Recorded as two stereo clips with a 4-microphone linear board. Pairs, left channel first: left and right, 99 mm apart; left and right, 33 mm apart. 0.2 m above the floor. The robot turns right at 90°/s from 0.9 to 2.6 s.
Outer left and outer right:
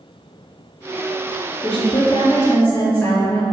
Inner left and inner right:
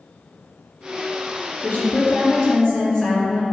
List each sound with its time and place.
1.6 s a woman speaking: 75° left, 1.9 m; by 3.4 s 160° left, 1.9 m